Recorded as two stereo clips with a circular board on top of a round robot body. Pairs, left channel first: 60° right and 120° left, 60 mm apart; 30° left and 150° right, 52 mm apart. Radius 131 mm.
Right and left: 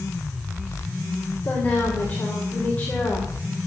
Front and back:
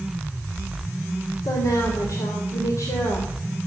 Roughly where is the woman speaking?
Ahead.